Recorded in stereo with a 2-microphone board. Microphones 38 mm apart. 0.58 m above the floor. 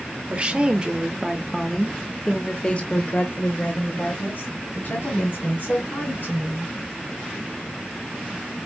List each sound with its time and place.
0.3 s a woman speaking: 30° right (ahead or behind), 1.2 m; by 6.7 s 65° left (ahead or behind), 2.5 m